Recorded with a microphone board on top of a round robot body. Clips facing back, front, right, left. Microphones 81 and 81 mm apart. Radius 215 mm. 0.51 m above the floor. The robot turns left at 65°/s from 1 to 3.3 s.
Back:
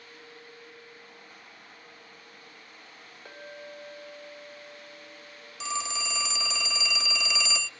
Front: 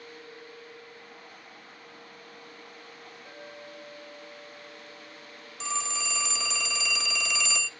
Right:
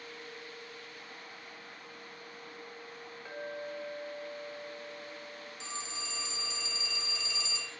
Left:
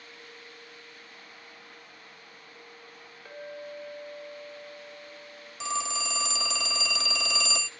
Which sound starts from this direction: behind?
A clink, at 3.2 s.